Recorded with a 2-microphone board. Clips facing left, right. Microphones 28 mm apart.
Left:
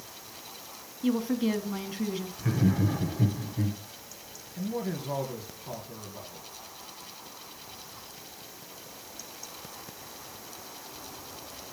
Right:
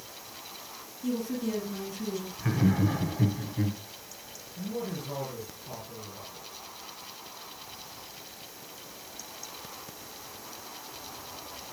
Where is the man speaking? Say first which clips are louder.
Left 2 dB; 30° left (ahead or behind), 3 m.